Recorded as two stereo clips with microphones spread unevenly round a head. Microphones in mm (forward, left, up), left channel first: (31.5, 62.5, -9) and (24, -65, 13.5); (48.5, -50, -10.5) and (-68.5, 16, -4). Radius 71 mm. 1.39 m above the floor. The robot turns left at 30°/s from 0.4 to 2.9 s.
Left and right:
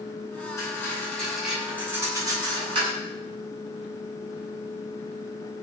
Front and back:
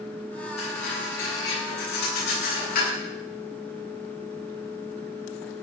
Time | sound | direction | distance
0.6 | cutlery clinking | 20° left | 9.5 m